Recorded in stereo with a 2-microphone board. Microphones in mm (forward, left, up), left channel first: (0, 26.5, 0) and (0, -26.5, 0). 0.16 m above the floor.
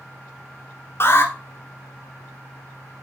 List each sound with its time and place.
1.0 s an alarm: 45° left (ahead or behind), 1.5 m